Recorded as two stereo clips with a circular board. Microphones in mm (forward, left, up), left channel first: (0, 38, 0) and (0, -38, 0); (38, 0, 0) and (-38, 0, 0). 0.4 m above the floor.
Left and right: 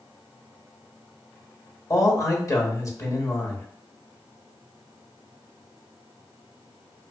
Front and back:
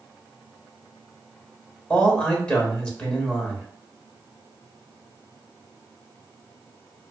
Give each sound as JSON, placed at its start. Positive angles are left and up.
{"t": 1.9, "sound": "a man speaking", "azimuth_deg": 70, "distance_m": 1.1}